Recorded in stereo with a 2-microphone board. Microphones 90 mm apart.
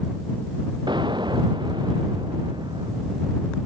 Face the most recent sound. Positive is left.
turn(degrees=-55)  # may be behind; listen again after turning